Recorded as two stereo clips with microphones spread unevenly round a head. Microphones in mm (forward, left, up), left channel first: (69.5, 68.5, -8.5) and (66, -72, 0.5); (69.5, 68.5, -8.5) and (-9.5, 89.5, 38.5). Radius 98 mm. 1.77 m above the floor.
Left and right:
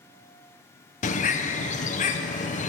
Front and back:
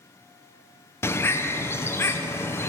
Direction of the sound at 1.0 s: 65° left.